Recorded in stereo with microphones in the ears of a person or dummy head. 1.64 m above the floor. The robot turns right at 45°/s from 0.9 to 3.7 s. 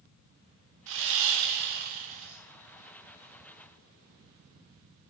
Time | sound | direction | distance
0.9 | sawing | 100° right | 0.6 m